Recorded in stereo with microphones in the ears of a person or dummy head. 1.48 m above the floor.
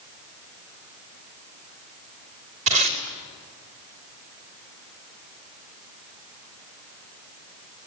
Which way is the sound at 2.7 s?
40° right (ahead or behind).